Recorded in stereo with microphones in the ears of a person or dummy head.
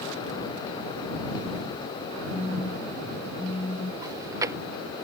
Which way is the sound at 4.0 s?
10° right (ahead or behind).